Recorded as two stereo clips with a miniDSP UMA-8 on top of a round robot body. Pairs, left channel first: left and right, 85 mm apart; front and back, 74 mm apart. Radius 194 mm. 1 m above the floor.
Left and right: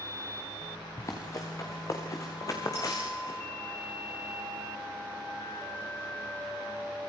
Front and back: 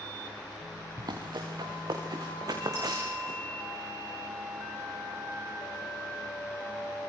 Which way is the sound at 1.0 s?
145° left.